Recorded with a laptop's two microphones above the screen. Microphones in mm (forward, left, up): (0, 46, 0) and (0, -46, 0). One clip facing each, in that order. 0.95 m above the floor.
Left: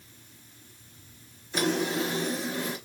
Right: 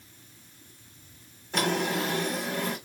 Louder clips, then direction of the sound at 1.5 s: Even; 55° right (ahead or behind).